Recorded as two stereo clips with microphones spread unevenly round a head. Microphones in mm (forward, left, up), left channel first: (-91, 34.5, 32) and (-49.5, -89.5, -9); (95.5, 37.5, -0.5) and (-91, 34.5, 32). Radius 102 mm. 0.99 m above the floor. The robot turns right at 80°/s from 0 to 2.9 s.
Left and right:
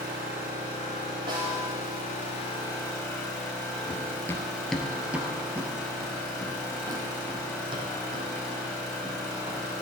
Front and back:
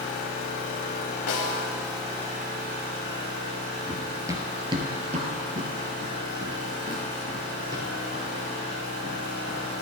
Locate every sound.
0.0 s an engine running: 40° right, 3.5 m; by 9.8 s 170° right, 3.5 m
1.3 s a snare drum: straight ahead, 1.6 m; by 1.7 s 30° left, 1.6 m
3.9 s running footsteps: 110° left, 1.3 m; by 9.7 s 125° right, 4 m